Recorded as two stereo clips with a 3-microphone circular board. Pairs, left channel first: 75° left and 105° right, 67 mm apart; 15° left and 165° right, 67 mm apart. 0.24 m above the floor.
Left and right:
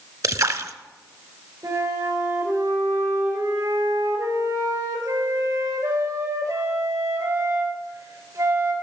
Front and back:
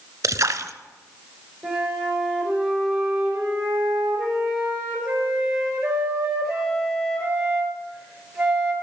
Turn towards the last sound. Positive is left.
turn(degrees=-85)